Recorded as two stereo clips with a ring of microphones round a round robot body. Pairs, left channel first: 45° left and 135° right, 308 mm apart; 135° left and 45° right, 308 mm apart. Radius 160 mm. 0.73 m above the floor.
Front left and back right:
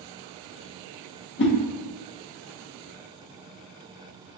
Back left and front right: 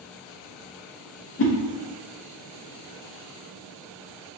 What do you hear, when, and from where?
1.4 s a whoosh: 90° left, 0.9 m